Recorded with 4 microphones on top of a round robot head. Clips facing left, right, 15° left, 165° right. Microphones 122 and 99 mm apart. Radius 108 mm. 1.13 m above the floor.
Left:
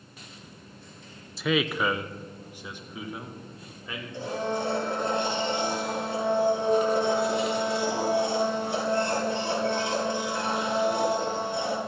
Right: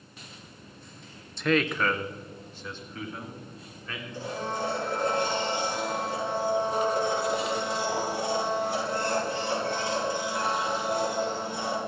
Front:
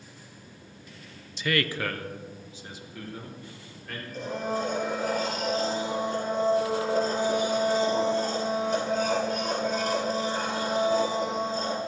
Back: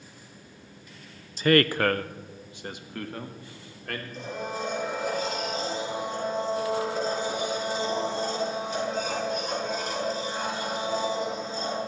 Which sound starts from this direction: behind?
A man speaking, at 1.4 s.